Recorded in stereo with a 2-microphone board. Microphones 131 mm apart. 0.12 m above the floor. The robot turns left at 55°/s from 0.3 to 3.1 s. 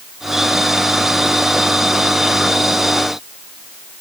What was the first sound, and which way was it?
Only background noise.